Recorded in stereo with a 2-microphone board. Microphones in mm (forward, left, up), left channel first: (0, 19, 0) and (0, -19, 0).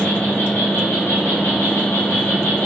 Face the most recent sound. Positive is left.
turn(degrees=75)  # may be behind; listen again after turning